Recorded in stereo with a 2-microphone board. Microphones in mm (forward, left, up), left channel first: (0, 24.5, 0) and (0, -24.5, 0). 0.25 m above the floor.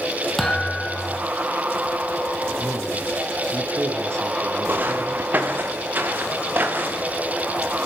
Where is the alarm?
No alarm in this recording.